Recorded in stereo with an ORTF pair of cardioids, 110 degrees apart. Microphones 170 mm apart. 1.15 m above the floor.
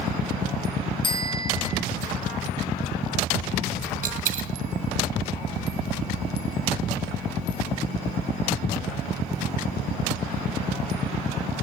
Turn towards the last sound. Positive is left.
turn(degrees=-55)